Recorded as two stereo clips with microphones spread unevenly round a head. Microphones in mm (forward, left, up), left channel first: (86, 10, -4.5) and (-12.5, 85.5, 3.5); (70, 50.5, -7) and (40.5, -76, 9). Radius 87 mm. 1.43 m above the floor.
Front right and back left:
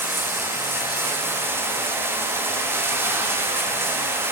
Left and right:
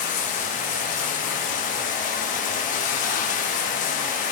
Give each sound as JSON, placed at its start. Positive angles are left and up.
{"t": 0.0, "sound": "running water", "azimuth_deg": 75, "distance_m": 1.1}